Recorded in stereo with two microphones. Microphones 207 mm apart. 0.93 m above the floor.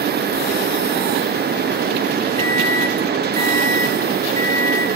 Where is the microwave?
15° left (ahead or behind), 2.0 m.